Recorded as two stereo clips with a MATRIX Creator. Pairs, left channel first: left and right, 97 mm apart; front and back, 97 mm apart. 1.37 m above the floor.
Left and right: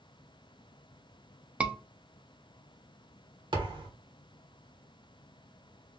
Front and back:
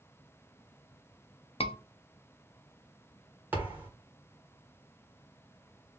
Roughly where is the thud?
Right.